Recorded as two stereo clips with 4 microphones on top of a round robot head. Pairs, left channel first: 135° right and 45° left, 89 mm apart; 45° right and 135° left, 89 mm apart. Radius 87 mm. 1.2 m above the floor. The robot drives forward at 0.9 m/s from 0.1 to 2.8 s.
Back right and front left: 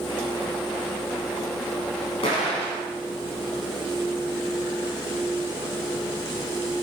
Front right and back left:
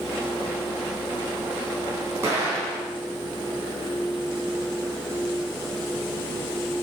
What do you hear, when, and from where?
2.2 s an explosion: 160° right, 5 m; by 2.9 s 165° right, 5.5 m